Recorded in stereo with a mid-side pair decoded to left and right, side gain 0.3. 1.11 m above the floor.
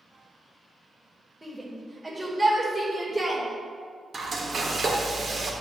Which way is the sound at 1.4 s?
Straight ahead.